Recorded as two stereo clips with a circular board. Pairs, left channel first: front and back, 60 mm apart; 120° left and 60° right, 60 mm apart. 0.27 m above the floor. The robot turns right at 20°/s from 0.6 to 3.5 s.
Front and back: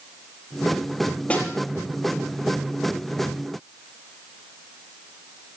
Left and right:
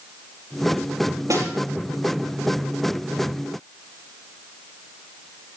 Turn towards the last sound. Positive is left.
turn(degrees=-20)